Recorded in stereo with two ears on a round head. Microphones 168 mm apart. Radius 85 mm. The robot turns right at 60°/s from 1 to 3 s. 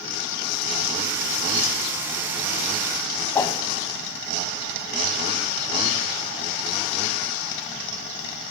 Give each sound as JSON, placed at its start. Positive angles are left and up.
{"t": 3.4, "sound": "a whoosh", "side_deg": 20, "distance_m": 0.5}